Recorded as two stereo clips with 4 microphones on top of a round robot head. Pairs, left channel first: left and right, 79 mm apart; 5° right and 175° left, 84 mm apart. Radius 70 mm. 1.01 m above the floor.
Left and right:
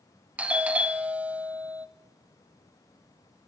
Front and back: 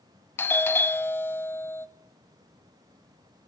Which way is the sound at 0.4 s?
35° right.